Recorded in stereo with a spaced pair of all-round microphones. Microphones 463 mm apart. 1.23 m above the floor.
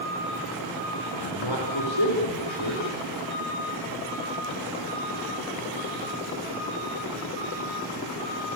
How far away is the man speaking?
About 4.5 m.